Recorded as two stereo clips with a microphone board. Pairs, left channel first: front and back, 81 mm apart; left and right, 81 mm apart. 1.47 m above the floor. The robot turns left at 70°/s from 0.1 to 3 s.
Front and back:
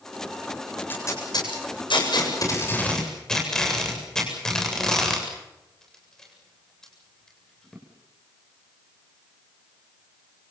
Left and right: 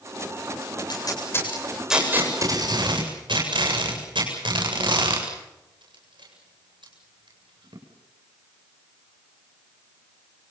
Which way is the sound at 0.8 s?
70° left.